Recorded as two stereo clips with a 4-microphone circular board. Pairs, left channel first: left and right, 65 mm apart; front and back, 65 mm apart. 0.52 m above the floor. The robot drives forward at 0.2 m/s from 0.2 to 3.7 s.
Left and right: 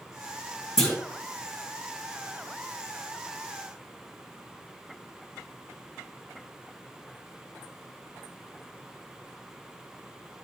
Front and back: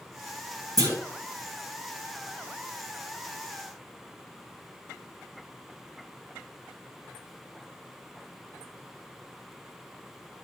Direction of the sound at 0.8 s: 175° left.